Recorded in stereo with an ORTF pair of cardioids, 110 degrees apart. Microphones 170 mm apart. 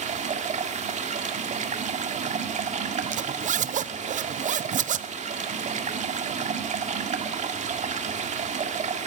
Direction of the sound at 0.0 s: 45° right.